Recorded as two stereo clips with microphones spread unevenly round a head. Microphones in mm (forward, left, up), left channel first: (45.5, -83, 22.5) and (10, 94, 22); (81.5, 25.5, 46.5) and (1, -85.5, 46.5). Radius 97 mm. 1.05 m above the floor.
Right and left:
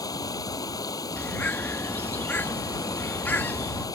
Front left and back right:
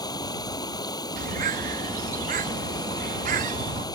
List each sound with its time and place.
0.0 s running water: 10° right
1.2 s a bird: 160° right